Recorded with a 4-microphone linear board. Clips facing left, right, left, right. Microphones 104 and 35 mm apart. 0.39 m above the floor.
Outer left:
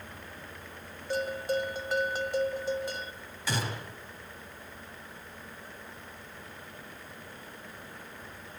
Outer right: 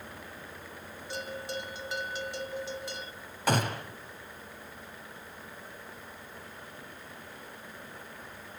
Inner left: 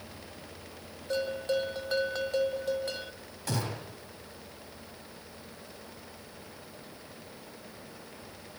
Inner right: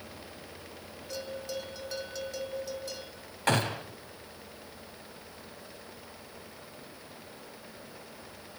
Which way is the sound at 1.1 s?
50° left (ahead or behind).